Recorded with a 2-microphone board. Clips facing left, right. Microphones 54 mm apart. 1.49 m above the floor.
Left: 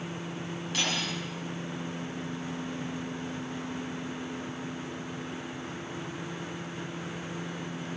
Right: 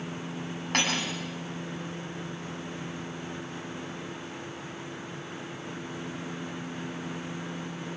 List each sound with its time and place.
0.7 s cutlery clinking: 55° right (ahead or behind), 7 m